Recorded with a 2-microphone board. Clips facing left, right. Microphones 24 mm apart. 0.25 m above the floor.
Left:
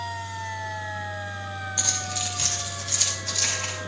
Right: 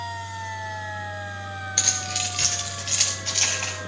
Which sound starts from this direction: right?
Keys jangling, at 1.8 s.